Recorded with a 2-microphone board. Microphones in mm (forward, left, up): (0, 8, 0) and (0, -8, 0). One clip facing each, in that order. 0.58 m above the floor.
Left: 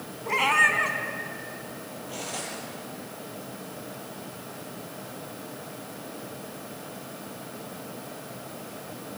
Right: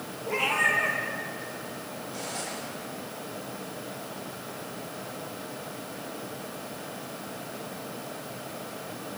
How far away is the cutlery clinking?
About 10 m.